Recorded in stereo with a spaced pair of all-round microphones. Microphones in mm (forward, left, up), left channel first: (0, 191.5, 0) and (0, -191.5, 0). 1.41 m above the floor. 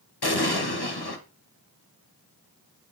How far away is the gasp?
No gasp in this recording.